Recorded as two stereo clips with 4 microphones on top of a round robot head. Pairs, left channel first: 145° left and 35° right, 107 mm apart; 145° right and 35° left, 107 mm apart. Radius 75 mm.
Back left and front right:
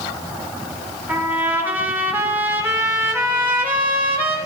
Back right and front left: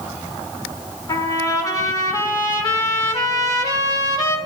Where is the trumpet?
100° right, 1.8 m.